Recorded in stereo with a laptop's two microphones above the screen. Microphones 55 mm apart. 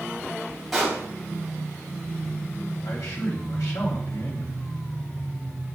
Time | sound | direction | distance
0.7 | a pop | centre (ahead or behind) | 2.5 m
2.8 | a man speaking | 70° left (ahead or behind) | 2.5 m